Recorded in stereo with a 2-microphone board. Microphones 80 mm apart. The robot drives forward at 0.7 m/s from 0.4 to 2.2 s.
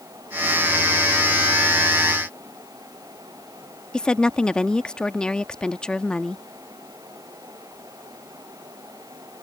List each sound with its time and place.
3.9 s a woman speaking: 10° left (ahead or behind)